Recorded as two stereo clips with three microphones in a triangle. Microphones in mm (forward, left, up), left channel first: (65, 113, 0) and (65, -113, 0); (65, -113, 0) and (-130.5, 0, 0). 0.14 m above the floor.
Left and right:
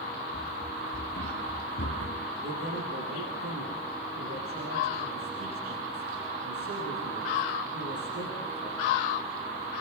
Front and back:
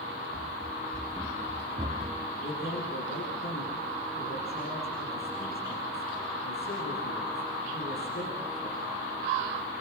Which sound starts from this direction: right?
A man speaking, at 2.4 s.